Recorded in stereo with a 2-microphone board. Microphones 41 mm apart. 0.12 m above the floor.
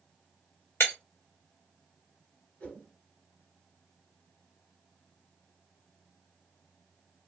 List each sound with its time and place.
0.8 s breaking glass: 80° left, 1.2 m
2.6 s a whoosh: 35° left (ahead or behind), 1.9 m